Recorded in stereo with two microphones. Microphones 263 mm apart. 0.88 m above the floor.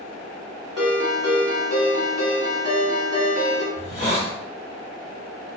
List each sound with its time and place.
0.8 s a ringtone: 65° right (ahead or behind), 1.1 m
3.8 s a hiss: 25° left (ahead or behind), 1.4 m